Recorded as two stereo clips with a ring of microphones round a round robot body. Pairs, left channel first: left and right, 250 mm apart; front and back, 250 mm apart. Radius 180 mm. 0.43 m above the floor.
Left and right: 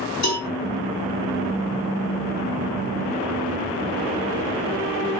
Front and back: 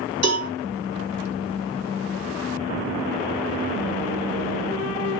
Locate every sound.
0.2 s a cowbell: 175° left, 2.5 m